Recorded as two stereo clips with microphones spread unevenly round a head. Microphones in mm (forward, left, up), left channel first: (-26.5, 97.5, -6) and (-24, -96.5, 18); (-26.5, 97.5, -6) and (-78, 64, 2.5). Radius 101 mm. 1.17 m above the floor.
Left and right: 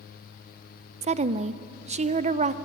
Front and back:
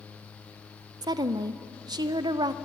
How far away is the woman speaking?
About 0.8 m.